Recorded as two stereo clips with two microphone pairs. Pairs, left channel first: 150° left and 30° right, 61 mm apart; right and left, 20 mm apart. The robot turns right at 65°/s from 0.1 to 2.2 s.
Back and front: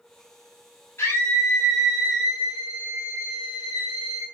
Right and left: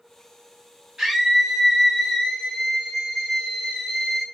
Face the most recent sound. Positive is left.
turn(degrees=-170)